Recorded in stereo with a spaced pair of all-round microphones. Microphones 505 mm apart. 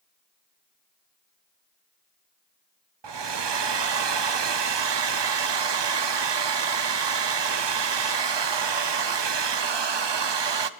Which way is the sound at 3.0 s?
55° right (ahead or behind).